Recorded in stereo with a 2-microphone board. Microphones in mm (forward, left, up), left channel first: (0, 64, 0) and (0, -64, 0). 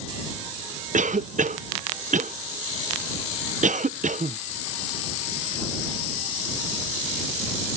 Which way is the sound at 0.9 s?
80° right.